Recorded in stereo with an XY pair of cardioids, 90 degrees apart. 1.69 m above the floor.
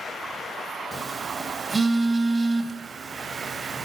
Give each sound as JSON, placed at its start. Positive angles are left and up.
{"t": 0.9, "sound": "a phone buzzing", "azimuth_deg": -20, "distance_m": 3.5}